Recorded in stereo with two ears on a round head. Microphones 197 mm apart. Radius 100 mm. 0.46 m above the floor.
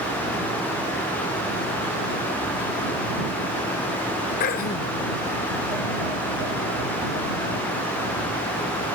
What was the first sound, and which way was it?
Throat clearing, 40° left (ahead or behind).